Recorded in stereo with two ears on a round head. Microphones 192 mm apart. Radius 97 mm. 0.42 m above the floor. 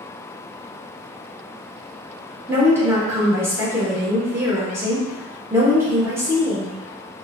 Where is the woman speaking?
10° right (ahead or behind), 0.8 m.